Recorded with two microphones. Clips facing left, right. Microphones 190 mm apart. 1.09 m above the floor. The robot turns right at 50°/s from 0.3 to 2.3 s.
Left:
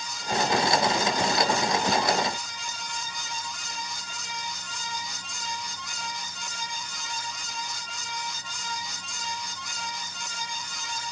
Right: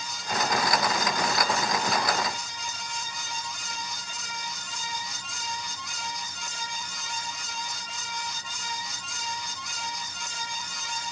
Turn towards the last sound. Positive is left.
No sound to turn to.